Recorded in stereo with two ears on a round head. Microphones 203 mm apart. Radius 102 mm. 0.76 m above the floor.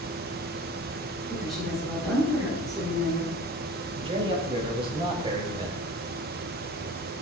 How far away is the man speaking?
About 4.5 m.